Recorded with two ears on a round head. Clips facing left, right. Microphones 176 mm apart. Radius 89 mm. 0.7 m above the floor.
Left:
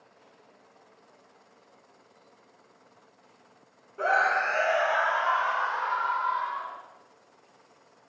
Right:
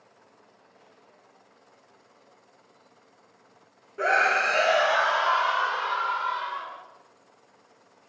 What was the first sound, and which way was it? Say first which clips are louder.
A scream: right 1 dB; 20° right (ahead or behind).